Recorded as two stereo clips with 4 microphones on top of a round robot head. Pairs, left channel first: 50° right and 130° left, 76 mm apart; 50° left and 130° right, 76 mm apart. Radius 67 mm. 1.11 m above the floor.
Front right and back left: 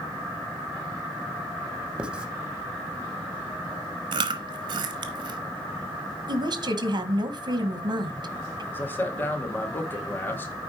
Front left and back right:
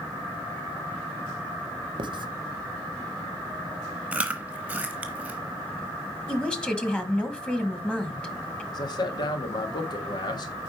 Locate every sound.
2.0 s writing: 150° right, 0.7 m
4.1 s chewing: 155° left, 0.8 m
6.3 s a woman speaking: 125° left, 1.5 m
8.7 s a man speaking: 15° left, 1.7 m